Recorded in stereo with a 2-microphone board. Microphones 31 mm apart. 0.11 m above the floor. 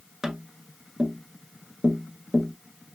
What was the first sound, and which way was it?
Tapping, 15° right (ahead or behind).